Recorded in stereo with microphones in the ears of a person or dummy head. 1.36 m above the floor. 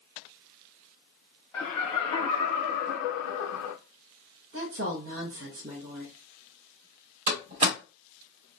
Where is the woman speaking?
75° right (ahead or behind), 1.5 m.